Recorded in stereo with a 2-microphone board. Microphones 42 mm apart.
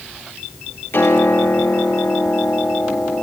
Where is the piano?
70° left (ahead or behind), 5.5 m.